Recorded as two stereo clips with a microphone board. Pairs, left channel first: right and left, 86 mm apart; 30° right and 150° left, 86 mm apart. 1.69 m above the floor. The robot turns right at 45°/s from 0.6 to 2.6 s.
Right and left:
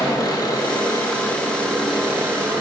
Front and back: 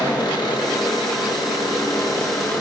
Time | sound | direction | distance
0.0 | an engine running | 60° right | 2.5 m